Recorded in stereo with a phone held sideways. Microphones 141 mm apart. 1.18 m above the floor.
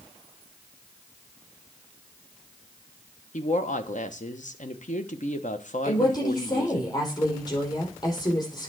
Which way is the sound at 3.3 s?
60° left (ahead or behind).